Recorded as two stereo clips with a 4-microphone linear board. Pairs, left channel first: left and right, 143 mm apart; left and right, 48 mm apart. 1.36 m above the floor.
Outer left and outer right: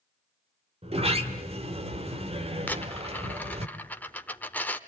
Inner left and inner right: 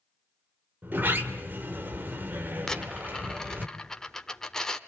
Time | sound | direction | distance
0.8 | a sliding door | 45° right (ahead or behind) | 1.5 m
2.7 | a dropped coin | 10° left (ahead or behind) | 1.0 m